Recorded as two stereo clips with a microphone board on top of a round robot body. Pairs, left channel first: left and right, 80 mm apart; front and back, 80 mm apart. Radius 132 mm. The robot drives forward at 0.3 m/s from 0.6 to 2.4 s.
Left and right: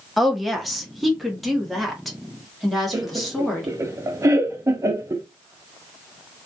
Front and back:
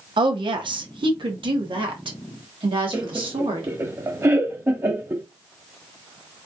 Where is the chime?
I don't hear a chime.